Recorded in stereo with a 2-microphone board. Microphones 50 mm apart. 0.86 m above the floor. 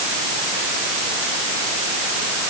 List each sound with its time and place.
Only background noise.